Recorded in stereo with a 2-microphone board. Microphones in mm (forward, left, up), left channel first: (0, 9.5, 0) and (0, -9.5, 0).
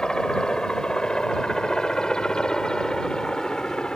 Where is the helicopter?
40° left (ahead or behind); by 4.0 s 45° left (ahead or behind).